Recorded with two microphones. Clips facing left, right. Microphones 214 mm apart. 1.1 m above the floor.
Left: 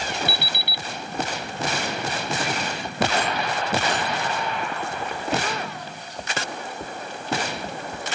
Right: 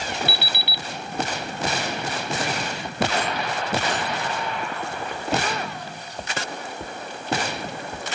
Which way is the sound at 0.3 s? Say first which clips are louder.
Even; 50° left (ahead or behind).